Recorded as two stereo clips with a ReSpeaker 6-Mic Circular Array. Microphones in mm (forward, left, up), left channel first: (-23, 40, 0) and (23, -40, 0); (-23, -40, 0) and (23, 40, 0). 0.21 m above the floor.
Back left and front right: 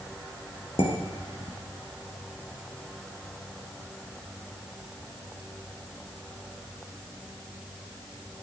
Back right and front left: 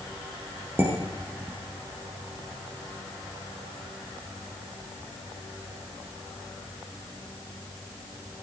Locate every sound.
0.8 s dishes clattering: 125° left, 3 m